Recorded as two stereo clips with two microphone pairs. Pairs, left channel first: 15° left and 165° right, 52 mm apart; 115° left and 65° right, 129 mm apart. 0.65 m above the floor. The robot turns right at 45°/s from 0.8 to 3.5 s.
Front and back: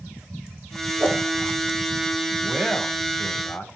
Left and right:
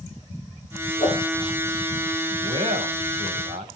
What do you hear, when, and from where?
1.0 s a whoosh: 150° left, 6 m; by 1.2 s 160° left, 6 m
2.4 s a man speaking: 95° right, 3.5 m; by 3.7 s 45° right, 3.5 m